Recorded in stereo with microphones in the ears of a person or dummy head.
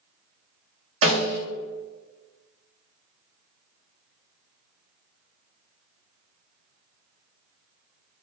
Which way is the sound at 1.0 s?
75° right (ahead or behind).